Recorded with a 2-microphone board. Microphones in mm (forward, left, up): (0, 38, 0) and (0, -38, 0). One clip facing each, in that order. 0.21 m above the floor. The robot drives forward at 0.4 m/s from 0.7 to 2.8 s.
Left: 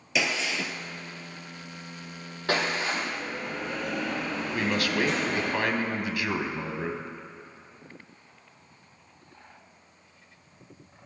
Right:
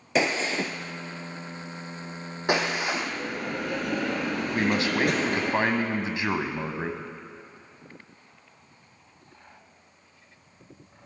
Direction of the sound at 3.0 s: 70° right (ahead or behind).